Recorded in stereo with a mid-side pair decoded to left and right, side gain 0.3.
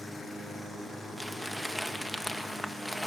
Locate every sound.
1.2 s crumpling: 5° left, 1.9 m